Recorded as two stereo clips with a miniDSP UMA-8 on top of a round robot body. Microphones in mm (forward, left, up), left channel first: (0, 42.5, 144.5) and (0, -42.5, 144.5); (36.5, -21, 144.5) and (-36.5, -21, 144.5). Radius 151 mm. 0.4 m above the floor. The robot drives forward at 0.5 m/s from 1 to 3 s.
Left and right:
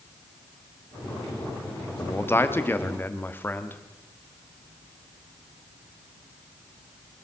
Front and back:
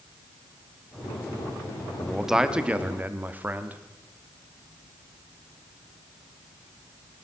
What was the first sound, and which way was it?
A man speaking, 90° left.